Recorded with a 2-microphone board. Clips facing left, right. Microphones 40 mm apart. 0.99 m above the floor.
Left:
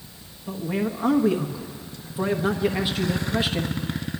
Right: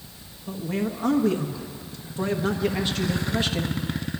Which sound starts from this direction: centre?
A man speaking, at 0.5 s.